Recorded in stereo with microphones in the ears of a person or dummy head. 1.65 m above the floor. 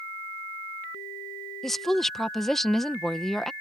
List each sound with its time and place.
1.6 s a woman speaking: centre (ahead or behind)